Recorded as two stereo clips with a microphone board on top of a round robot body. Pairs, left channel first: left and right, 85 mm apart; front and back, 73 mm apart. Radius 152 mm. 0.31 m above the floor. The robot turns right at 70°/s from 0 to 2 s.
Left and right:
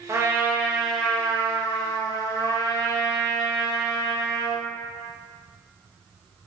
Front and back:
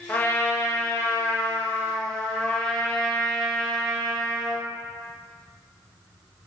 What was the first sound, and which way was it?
A trumpet, 60° right.